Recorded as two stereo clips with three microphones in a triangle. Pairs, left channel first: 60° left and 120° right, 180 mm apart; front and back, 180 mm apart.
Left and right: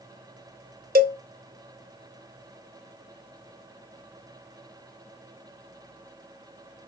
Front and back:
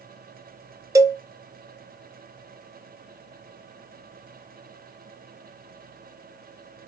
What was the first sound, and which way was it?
A cowbell, 115° right.